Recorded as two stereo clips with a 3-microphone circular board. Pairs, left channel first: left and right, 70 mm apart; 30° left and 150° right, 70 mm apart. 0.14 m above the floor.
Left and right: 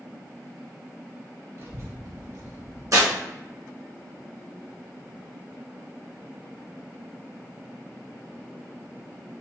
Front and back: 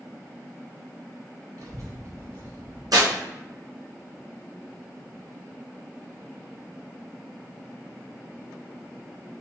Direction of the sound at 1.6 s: 125° right.